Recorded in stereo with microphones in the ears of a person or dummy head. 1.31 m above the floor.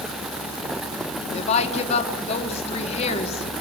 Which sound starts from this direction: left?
A woman speaking, at 1.3 s.